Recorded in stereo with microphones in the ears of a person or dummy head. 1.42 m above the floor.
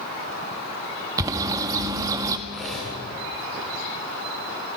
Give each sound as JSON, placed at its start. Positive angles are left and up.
{"t": 1.2, "sound": "a bird", "side_deg": -20, "distance_m": 1.5}
{"t": 2.5, "sound": "cutlery clinking", "side_deg": 0, "distance_m": 8.0}